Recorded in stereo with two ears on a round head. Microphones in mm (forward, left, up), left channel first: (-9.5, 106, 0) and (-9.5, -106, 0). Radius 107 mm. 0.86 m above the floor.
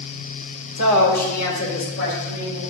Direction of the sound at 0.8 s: 75° left (ahead or behind).